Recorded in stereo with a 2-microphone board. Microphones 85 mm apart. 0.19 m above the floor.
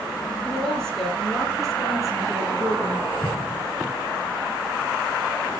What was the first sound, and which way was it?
A woman speaking, 10° left (ahead or behind).